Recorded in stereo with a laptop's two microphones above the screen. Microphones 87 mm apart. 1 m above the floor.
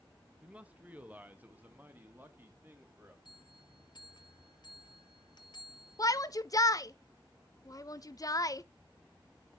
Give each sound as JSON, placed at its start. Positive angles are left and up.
{"t": 0.4, "sound": "a man speaking", "side_deg": -15, "distance_m": 1.1}
{"t": 3.2, "sound": "a bell", "side_deg": 55, "distance_m": 1.4}
{"t": 6.0, "sound": "a shout", "side_deg": 40, "distance_m": 0.7}